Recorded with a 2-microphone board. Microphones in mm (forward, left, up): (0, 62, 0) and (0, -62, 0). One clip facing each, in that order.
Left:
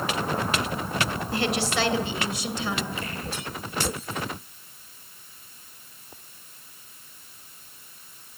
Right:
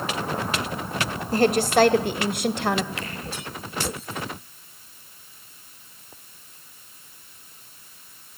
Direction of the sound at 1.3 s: 40° right (ahead or behind).